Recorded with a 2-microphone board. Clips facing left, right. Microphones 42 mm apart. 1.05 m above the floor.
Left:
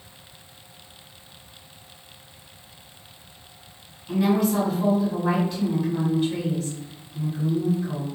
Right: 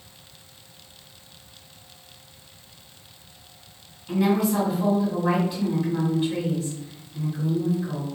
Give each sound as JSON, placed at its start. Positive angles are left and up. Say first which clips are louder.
{"t": 4.1, "sound": "a woman speaking", "louder": "even", "side_deg": -5, "distance_m": 1.6}